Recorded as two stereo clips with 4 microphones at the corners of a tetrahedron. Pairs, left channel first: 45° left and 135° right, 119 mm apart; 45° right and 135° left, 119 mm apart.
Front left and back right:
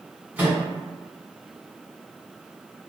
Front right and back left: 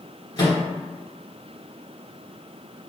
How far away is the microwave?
About 1.5 m.